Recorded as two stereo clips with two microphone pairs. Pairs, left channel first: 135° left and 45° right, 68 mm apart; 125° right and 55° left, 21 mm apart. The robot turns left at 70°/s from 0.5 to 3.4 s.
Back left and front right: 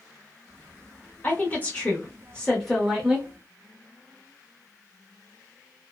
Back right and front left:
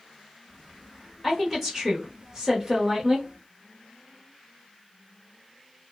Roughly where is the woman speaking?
Behind.